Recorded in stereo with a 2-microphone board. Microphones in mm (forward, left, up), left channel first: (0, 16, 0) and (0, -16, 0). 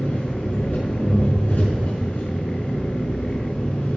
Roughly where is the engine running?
Left.